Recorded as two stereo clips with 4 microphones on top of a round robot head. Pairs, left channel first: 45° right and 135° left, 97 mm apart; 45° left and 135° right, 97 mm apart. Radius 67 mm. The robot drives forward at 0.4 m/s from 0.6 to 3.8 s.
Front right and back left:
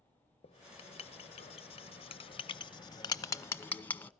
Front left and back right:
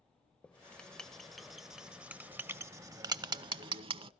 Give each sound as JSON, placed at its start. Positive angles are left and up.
{"t": 0.4, "sound": "writing", "azimuth_deg": -35, "distance_m": 1.2}